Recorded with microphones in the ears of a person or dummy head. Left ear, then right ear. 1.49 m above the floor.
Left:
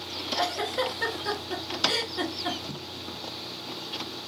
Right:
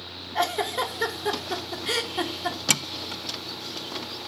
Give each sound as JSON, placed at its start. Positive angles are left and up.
{"t": 0.3, "sound": "a giggle", "side_deg": -15, "distance_m": 0.8}